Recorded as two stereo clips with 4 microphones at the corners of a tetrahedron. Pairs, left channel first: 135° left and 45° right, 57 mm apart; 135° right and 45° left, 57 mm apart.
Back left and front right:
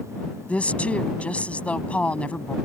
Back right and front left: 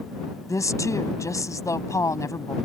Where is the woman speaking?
155° right.